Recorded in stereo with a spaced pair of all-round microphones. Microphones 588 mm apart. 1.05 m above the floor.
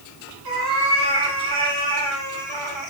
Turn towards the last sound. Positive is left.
turn(degrees=-50)  # may be behind; listen again after turning